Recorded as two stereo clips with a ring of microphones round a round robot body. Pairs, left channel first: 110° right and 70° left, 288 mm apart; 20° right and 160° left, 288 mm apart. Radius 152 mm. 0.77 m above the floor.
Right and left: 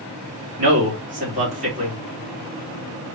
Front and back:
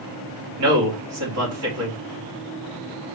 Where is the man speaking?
130° left, 2.5 m.